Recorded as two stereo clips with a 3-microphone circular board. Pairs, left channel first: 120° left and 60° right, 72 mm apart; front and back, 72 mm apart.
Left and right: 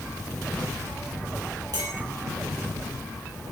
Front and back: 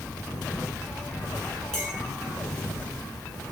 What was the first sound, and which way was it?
A clink, 80° right.